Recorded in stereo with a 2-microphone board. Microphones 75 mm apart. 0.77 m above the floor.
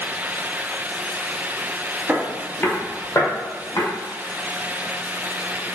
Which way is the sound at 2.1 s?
25° right (ahead or behind).